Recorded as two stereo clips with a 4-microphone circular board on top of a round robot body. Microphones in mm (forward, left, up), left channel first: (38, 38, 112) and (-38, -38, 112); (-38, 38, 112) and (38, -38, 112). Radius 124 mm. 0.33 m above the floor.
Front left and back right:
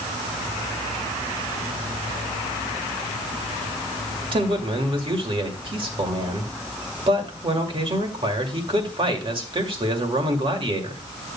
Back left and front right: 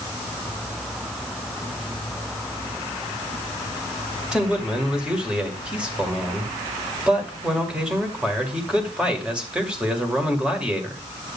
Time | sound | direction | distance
4.3 | a man speaking | 125° right | 2 m